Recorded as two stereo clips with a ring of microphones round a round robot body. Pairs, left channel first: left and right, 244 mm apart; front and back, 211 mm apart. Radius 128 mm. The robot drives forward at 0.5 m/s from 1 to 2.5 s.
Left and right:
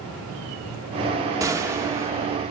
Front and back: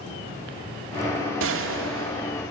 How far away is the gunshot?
About 1.6 m.